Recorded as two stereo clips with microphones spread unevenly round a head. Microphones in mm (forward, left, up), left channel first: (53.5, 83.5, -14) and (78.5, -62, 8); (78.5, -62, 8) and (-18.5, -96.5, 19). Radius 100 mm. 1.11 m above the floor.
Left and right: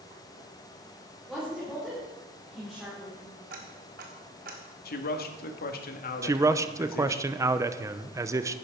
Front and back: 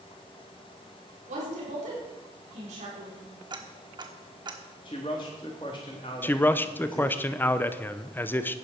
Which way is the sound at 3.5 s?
115° right.